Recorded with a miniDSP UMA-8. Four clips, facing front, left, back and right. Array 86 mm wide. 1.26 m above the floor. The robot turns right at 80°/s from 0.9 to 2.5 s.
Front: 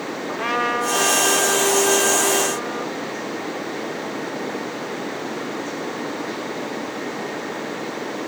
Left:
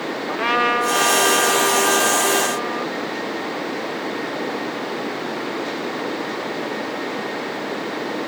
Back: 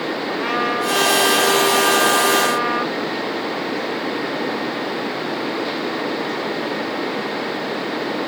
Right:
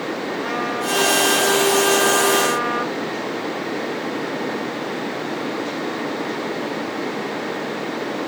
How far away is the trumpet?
About 1.4 m.